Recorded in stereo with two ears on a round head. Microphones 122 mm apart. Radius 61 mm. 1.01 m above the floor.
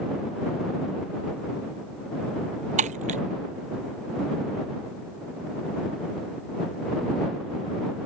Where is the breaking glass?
60° right (ahead or behind).